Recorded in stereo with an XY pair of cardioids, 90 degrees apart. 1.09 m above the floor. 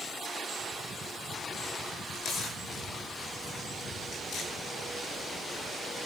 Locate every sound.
2.1 s tearing paper: 70° left, 8 m